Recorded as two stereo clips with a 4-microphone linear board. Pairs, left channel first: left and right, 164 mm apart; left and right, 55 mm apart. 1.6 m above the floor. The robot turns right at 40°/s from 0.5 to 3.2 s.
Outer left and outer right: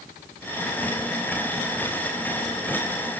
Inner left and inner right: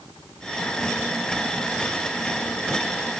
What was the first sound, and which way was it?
Only background noise.